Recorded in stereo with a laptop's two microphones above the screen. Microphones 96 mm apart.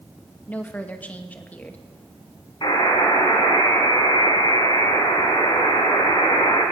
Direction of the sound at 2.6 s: 60° left (ahead or behind).